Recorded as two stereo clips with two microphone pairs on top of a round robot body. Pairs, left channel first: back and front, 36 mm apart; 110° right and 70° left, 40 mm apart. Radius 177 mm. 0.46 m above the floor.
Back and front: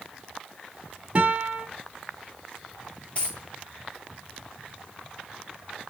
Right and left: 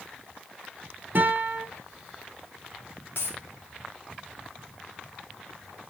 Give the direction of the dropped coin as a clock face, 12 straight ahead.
4 o'clock.